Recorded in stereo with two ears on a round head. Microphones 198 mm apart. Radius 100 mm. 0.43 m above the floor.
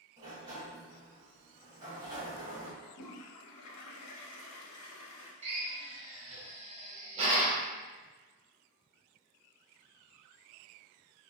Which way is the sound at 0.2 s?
20° right (ahead or behind).